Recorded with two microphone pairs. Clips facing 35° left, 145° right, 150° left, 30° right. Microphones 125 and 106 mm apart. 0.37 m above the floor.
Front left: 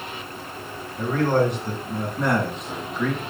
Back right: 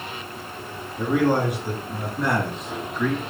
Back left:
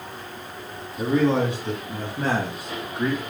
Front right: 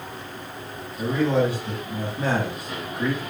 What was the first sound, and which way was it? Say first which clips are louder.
A man speaking: even, back left 1 dB; 140° left.